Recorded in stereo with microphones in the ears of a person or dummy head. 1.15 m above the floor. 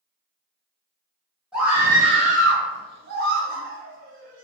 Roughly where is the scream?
Centre.